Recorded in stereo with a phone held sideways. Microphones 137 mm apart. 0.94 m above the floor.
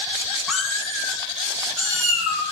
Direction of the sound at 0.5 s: Centre (ahead or behind).